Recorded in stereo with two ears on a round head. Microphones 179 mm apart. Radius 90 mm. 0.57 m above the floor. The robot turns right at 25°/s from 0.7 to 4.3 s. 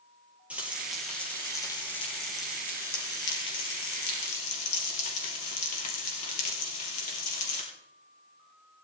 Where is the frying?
5° right, 3 m; by 7.6 s 85° left, 3 m.